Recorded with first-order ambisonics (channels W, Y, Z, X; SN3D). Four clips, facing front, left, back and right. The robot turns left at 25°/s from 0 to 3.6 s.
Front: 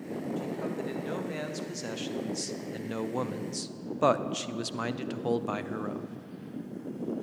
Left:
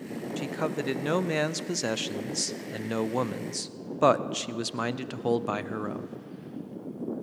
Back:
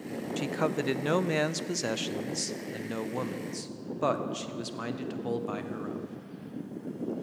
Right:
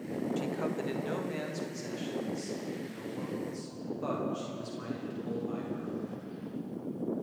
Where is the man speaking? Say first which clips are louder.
Left 7 dB, back 8 dB; 155° left, 0.5 m; by 6.1 s 75° left, 0.5 m.